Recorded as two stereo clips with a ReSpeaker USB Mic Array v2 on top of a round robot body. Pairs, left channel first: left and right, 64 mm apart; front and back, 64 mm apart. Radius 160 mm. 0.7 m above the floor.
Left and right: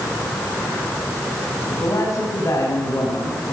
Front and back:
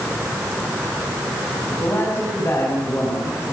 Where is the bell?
No bell in this recording.